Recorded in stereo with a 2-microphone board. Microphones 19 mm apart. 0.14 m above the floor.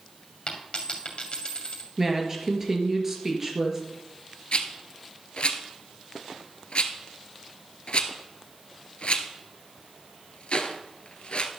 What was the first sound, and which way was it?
A dropped coin, 50° left (ahead or behind).